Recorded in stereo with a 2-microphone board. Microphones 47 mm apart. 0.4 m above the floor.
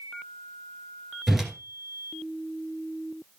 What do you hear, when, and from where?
1.3 s a whoosh: 5° right (ahead or behind), 2 m